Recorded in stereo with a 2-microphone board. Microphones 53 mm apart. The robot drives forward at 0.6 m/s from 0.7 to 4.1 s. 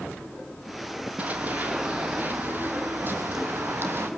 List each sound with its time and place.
1.2 s running footsteps: 30° right (ahead or behind), 3.5 m; by 4.1 s 45° right (ahead or behind), 3.5 m